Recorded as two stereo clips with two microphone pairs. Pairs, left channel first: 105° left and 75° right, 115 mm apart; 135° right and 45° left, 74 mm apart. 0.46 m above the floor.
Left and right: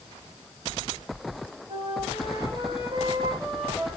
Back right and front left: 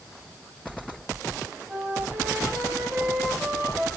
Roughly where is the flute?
Ahead right.